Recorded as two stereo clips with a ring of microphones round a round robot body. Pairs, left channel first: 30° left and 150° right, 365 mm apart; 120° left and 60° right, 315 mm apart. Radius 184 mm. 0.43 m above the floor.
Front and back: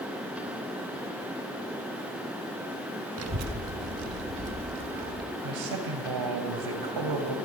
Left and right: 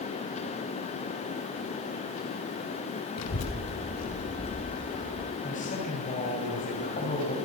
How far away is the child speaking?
About 2 m.